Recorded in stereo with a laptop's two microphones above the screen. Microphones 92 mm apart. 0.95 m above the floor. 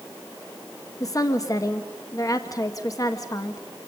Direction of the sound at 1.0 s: 40° left (ahead or behind).